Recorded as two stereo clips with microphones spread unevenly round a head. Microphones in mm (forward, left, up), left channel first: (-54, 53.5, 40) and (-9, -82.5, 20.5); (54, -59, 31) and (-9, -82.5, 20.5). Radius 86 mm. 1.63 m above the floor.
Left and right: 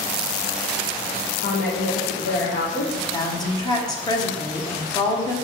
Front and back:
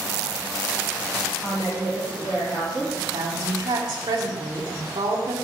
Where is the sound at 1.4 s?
95° left, 1.3 m.